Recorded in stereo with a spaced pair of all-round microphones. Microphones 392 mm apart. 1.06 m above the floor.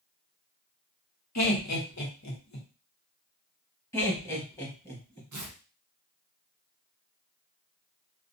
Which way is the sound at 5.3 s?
50° right (ahead or behind).